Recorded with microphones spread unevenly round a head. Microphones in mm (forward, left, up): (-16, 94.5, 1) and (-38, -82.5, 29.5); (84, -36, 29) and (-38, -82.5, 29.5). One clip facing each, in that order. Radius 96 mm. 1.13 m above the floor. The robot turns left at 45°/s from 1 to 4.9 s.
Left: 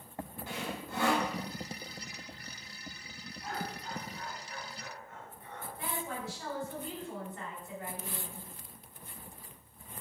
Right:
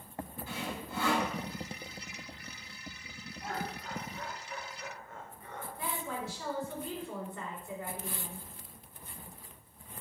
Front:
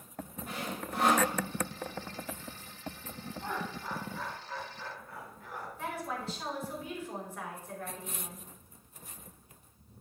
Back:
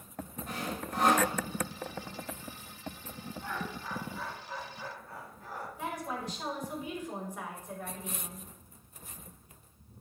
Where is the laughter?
40° right, 3 m; by 5.7 s 105° right, 3 m.